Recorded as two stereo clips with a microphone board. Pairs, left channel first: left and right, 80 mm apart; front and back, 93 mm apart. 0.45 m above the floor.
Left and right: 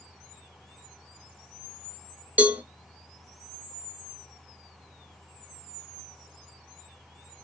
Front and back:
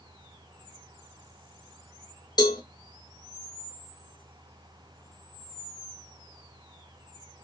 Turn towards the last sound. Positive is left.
turn(degrees=-20)